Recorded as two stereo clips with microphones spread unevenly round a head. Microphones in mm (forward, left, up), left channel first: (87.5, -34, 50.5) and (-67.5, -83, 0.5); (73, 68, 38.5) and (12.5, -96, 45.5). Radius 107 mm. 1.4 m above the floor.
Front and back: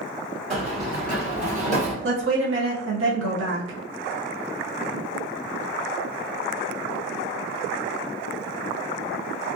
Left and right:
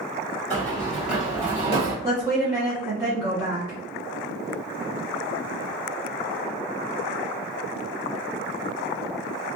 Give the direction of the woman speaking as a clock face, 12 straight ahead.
6 o'clock.